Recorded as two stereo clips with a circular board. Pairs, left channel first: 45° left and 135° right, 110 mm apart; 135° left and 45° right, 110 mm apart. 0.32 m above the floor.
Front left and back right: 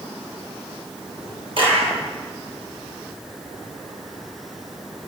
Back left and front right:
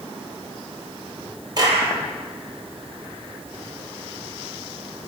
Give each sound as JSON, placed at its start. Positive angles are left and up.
{"t": 1.6, "sound": "a clap", "azimuth_deg": -95, "distance_m": 8.5}